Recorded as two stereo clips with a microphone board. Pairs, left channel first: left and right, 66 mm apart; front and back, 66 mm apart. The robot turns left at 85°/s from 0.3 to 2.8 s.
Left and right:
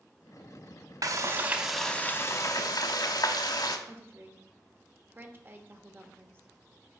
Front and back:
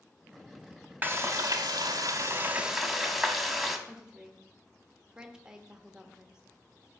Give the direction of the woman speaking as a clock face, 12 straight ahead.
4 o'clock.